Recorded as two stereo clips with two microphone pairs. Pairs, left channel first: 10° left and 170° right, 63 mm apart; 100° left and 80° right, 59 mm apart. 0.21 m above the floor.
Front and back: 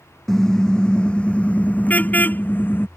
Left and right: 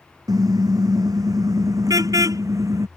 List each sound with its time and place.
0.3 s a car horn: 75° right; by 2.9 s 50° right